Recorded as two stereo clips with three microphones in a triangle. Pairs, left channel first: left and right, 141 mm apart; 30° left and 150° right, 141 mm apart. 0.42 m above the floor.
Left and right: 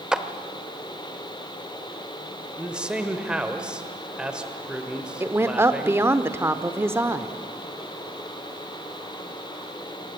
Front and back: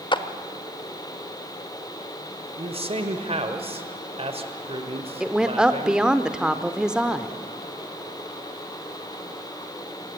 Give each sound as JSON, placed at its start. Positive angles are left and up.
{"t": 0.1, "sound": "a clap", "azimuth_deg": -5, "distance_m": 0.9}
{"t": 2.6, "sound": "a man speaking", "azimuth_deg": -170, "distance_m": 1.4}
{"t": 5.2, "sound": "a woman speaking", "azimuth_deg": -80, "distance_m": 0.8}